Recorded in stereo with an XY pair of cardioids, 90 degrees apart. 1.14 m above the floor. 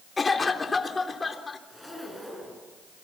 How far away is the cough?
About 3.5 m.